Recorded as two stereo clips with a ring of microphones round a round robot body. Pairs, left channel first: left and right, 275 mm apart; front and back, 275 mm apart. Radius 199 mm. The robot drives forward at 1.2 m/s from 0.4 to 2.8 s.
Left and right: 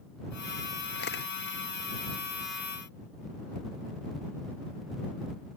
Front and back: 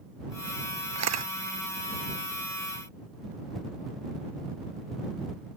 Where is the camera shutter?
155° left.